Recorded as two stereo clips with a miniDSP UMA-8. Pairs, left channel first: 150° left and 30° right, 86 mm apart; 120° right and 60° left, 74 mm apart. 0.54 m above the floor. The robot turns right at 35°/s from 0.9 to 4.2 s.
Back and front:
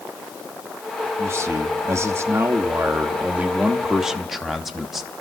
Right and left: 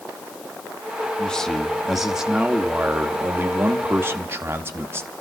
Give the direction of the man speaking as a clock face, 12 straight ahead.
2 o'clock.